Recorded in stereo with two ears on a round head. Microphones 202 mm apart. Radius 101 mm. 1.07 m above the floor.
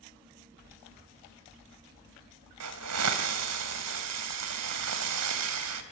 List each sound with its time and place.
2.6 s a hiss: 80° right, 3 m